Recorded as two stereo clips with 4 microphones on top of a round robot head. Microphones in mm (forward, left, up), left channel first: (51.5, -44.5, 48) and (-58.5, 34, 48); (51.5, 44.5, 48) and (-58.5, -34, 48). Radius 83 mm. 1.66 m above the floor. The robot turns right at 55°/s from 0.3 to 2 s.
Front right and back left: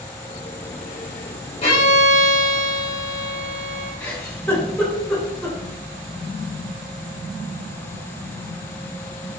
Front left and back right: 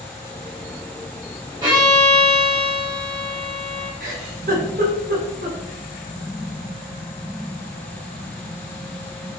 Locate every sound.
1.6 s a violin: 80° right, 3.5 m; by 3.9 s 60° right, 3.5 m
4.0 s a giggle: 110° right, 4 m